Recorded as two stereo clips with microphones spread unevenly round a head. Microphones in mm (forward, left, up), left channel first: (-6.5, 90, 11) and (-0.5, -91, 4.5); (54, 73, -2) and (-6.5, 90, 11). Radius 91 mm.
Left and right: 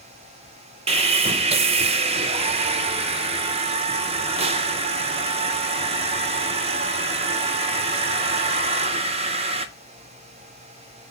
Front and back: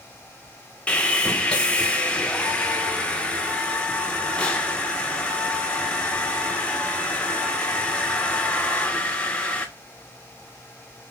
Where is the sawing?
100° right, 0.6 m.